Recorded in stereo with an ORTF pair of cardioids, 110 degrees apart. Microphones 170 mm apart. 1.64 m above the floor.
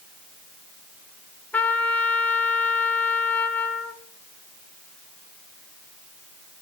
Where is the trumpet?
10° left, 1.2 m.